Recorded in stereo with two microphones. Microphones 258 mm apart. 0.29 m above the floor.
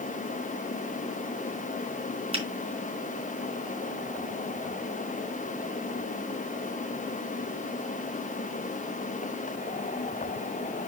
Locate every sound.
2.3 s a finger snap: 20° right (ahead or behind), 3.5 m